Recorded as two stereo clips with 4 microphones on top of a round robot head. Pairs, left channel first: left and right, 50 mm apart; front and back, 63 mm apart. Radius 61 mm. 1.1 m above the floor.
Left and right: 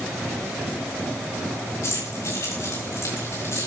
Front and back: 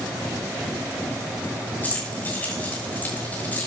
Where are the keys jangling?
65° left, 6.5 m.